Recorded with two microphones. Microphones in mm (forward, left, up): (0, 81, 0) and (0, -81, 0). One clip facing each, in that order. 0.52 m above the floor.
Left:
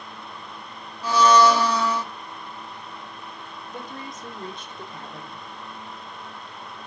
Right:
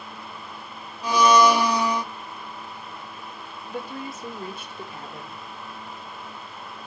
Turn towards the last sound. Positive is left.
turn(degrees=-5)  # may be behind; listen again after turning